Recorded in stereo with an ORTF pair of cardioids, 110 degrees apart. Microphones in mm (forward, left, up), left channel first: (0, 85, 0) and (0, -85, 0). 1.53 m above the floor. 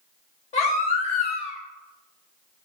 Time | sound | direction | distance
0.5 | a baby crying | 45° left | 0.9 m